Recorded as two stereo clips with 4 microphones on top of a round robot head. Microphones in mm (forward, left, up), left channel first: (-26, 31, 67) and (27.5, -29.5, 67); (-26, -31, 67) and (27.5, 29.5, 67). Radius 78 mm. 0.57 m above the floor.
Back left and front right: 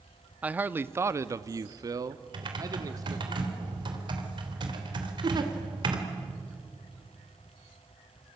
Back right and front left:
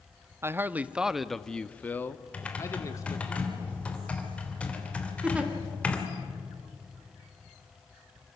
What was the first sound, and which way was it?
A man speaking, 15° left.